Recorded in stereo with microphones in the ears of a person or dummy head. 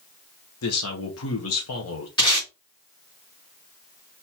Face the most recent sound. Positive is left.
turn(degrees=30)  # may be behind; listen again after turning